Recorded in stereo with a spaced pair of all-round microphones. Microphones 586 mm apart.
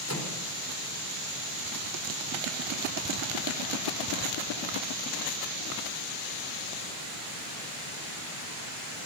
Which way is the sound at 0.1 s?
25° left (ahead or behind).